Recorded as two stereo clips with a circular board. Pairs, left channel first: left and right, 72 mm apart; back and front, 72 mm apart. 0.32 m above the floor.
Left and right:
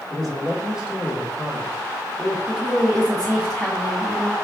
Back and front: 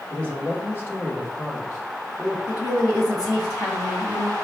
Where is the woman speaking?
Straight behind, 1.9 m.